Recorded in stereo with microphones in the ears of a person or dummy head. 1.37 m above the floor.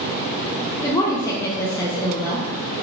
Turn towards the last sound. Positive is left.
turn(degrees=20)  # may be behind; listen again after turning